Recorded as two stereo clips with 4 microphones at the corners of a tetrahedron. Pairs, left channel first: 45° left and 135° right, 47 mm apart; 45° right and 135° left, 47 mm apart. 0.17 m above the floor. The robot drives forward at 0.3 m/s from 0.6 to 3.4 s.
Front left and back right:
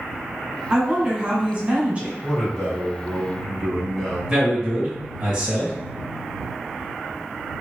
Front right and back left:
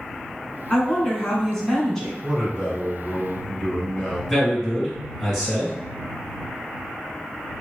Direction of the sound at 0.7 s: 95° right.